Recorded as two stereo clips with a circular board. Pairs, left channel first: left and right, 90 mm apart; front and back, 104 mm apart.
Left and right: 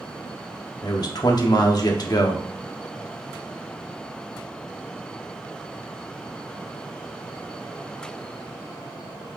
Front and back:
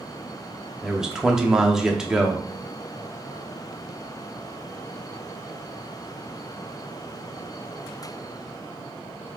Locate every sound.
0.8 s a man speaking: 100° left, 0.8 m